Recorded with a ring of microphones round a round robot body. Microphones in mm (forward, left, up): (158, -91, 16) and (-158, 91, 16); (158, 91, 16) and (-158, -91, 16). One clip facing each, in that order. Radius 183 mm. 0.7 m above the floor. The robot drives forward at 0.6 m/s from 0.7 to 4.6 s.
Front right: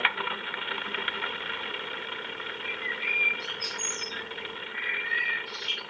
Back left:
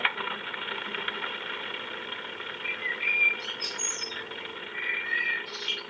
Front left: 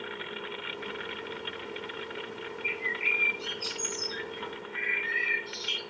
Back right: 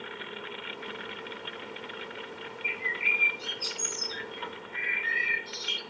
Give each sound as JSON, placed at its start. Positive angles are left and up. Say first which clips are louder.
{"t": 2.6, "sound": "a bird", "louder": "front right 1 dB, front left 3 dB", "azimuth_deg": -160, "distance_m": 4.0}